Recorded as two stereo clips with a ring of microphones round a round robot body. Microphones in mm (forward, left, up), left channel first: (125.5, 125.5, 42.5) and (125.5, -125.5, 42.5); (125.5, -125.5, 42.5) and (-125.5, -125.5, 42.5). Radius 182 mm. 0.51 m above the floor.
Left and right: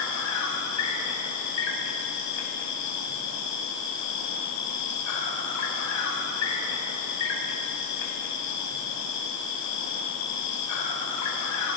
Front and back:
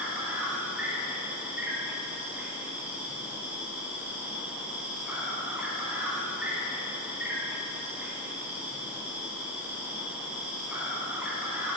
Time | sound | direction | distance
0.0 | an insect | 95° left | 1.1 m